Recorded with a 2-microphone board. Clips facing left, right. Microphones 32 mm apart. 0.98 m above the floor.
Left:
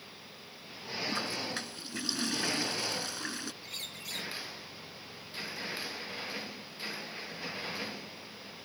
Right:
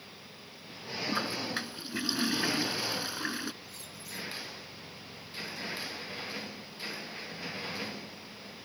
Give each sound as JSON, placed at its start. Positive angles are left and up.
{"t": 1.1, "sound": "a toilet flushing", "side_deg": -20}
{"t": 3.6, "sound": "a bird", "side_deg": 70}